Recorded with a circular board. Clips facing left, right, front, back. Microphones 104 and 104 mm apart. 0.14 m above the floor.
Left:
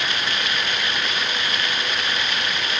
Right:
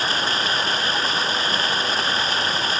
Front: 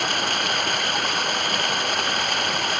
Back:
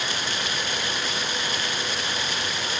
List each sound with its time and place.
0.0 s running water: 35° right